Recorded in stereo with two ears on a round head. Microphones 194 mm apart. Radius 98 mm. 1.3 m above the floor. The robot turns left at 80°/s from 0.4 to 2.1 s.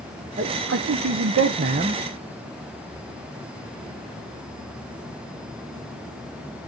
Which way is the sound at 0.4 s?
35° right.